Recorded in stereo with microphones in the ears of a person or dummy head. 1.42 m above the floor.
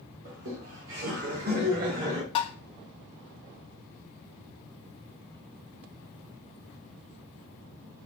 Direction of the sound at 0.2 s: 75° right (ahead or behind).